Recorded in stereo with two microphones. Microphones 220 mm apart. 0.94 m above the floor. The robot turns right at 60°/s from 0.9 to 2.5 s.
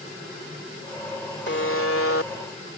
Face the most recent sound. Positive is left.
turn(degrees=115)